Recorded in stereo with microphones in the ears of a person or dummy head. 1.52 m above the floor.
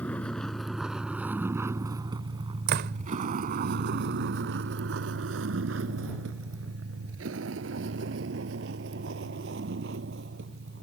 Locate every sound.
0.0 s a vehicle: 10° left (ahead or behind); by 10.8 s 70° right (ahead or behind)
2.7 s a door slam: 55° right (ahead or behind)